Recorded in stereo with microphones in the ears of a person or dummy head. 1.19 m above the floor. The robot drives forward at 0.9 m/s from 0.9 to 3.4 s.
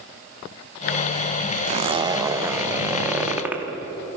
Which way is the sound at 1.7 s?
40° right (ahead or behind).